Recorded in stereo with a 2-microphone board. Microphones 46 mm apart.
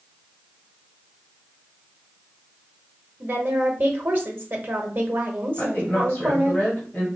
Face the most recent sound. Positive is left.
turn(degrees=30)  # may be behind; listen again after turning